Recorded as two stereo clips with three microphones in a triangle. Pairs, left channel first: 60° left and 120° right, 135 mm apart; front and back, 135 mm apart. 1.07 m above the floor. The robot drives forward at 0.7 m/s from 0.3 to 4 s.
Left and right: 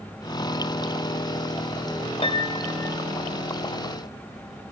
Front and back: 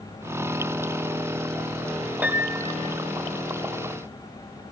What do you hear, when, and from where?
2.2 s a piano: 100° left, 0.7 m; by 3.0 s 135° left, 1.0 m